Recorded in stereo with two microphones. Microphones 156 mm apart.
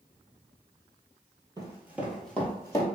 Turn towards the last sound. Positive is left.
turn(degrees=25)  # may be behind; listen again after turning